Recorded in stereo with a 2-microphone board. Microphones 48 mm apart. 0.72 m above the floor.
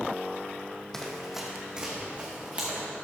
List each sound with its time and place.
0.9 s running footsteps: 10° left (ahead or behind), 1.3 m; by 2.9 s 35° right (ahead or behind), 3.5 m